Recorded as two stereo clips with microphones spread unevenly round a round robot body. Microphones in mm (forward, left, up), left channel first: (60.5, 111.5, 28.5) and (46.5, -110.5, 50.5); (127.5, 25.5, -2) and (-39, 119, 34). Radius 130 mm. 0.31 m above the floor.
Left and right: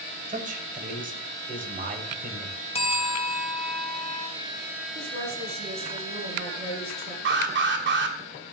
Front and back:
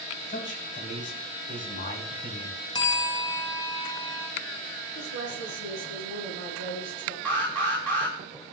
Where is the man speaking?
45° right, 2.5 m.